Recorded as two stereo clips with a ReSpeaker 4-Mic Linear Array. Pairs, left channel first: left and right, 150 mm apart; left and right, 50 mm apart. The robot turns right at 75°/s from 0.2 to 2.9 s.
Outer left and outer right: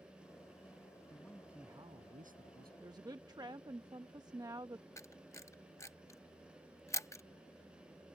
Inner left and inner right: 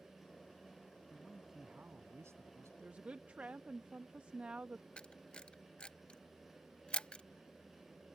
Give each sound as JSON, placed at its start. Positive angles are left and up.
{"t": 1.1, "sound": "a man speaking", "azimuth_deg": 155}
{"t": 2.8, "sound": "a woman speaking", "side_deg": -20}
{"t": 5.0, "sound": "a camera shutter", "side_deg": 20}